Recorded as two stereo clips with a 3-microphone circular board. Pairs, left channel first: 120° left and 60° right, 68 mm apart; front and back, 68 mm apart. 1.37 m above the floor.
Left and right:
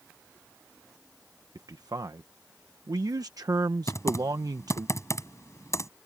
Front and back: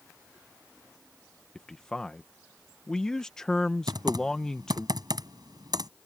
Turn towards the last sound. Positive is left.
turn(degrees=165)